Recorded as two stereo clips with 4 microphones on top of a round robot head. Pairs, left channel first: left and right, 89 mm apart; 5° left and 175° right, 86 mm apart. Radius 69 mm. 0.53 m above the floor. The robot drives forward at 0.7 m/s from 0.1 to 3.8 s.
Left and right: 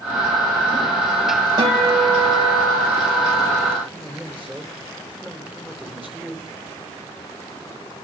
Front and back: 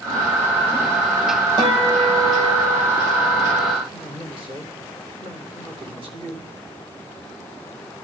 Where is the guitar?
135° right, 3 m; by 3.8 s 150° right, 4.5 m.